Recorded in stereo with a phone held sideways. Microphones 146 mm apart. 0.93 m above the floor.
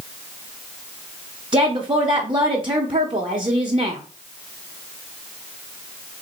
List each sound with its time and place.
1.5 s a woman speaking: 40° right (ahead or behind), 0.6 m